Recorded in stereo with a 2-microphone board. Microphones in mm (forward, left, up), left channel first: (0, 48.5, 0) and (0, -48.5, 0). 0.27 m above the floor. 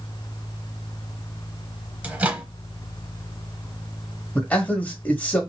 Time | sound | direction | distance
2.0 | a microwave | 15° right (ahead or behind) | 0.9 m
4.3 | a man speaking | 15° left (ahead or behind) | 1.4 m